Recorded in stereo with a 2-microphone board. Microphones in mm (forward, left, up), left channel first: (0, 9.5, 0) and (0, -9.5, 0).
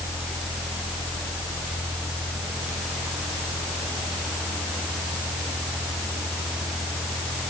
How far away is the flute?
I don't hear a flute.